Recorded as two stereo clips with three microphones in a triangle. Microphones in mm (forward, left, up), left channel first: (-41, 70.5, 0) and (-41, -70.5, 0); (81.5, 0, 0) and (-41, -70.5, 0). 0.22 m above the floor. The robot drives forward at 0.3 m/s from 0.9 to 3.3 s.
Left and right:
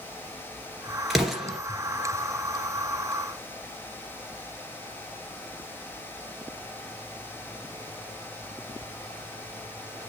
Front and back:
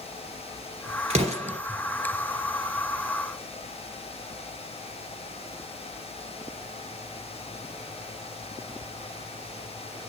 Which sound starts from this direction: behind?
An explosion, at 1.1 s.